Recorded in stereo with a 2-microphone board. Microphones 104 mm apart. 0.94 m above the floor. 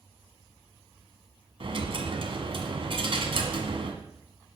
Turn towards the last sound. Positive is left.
turn(degrees=-60)  # may be behind; listen again after turning